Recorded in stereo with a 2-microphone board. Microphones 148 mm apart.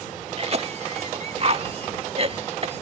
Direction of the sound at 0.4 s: 40° right (ahead or behind).